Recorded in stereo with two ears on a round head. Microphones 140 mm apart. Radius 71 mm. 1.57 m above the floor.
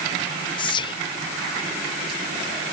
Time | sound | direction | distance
0.6 | whispering | 30° left (ahead or behind) | 0.6 m